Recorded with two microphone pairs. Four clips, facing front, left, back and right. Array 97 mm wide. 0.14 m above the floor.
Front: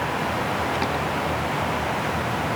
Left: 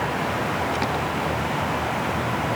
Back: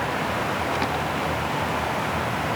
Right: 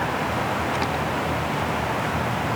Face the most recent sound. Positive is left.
No sound to turn to.